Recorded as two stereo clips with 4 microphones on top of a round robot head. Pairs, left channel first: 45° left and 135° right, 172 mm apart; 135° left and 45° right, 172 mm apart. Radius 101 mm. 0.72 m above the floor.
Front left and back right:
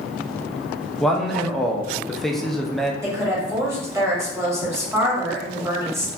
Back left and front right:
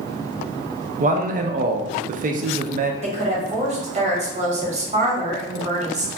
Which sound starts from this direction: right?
A woman speaking, at 3.0 s.